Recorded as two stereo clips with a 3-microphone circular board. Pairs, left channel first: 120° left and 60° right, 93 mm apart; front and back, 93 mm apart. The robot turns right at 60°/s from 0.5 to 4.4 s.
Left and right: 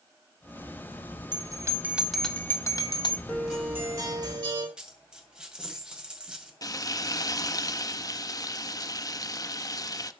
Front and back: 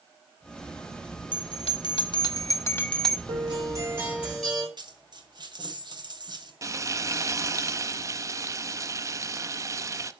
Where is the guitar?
155° right, 5.5 m; by 4.7 s 90° right, 5.5 m.